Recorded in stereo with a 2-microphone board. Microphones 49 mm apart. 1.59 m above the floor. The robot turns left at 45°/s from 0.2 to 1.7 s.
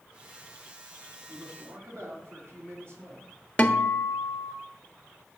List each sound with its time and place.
1.3 s a man speaking: 35° right (ahead or behind), 4.5 m; by 3.3 s 55° right (ahead or behind), 4.5 m
3.6 s a guitar: 25° left (ahead or behind), 1.1 m